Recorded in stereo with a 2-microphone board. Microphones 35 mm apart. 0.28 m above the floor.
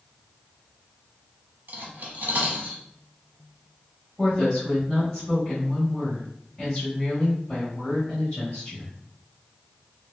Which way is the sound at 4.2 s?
20° left (ahead or behind).